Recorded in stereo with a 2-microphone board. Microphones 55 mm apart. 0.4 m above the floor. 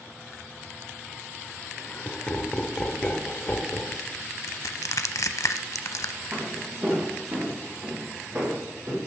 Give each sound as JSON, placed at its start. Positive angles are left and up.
{"t": 1.6, "sound": "laughter", "side_deg": 25, "distance_m": 1.0}
{"t": 4.5, "sound": "crushing", "side_deg": 90, "distance_m": 0.6}
{"t": 6.3, "sound": "footsteps", "side_deg": -30, "distance_m": 3.0}